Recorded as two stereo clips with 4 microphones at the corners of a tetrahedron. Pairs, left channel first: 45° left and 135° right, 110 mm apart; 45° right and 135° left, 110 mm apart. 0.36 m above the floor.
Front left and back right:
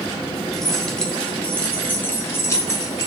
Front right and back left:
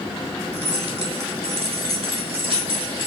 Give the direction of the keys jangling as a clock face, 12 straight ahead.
8 o'clock.